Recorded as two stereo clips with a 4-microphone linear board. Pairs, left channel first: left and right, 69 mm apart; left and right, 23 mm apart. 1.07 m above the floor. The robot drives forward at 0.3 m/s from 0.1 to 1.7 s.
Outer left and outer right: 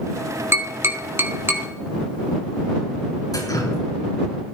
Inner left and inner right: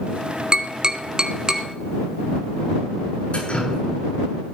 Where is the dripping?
60° left (ahead or behind), 7.5 m.